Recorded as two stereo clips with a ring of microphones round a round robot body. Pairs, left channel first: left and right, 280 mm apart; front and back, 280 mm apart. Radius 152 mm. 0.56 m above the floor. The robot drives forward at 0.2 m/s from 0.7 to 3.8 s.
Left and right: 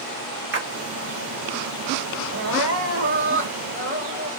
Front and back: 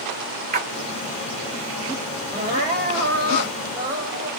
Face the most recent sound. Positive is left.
turn(degrees=-130)